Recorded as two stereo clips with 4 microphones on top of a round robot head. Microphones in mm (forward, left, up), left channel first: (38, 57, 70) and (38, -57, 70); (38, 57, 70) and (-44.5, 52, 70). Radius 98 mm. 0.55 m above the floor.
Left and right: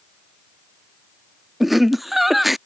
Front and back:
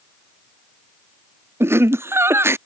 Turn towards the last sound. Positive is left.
turn(degrees=-175)